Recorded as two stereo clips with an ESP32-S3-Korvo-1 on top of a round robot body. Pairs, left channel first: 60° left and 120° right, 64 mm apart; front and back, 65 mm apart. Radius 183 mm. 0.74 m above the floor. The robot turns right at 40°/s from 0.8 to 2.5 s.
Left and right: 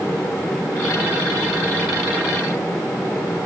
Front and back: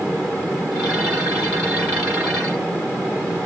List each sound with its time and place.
Only background noise.